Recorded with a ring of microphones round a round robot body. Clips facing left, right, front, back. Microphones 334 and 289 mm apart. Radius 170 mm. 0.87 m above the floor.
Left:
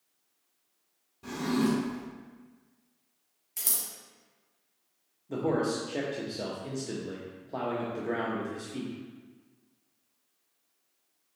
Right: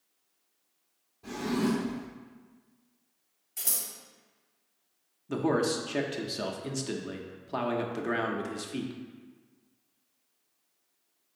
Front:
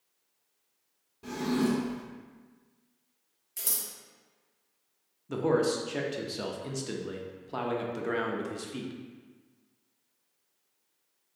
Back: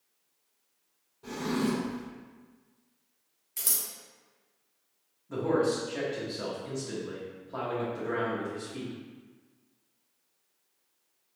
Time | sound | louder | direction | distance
1.2 | a drawer | left 1 dB, front 2 dB | 50° left | 1.3 m
3.6 | scissors | even, even | 105° left | 0.9 m
5.3 | a man speaking | right 1 dB, even | 35° right | 0.5 m